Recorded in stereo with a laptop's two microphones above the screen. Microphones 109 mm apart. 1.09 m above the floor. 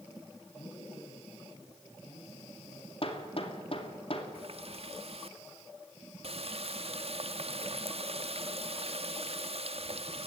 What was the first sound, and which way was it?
A man speaking, 90° left.